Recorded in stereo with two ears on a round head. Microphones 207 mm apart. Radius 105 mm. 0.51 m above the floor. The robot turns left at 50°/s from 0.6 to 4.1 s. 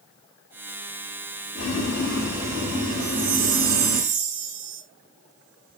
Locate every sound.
1.6 s boiling: 30° left, 4 m; by 4.0 s 95° right, 4 m
3.0 s a chime: 30° right, 2.5 m; by 4.8 s 85° right, 2.5 m